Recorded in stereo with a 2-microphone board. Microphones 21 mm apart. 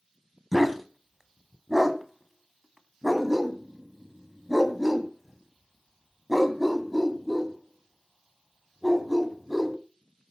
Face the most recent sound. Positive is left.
turn(degrees=-10)  # may be behind; listen again after turning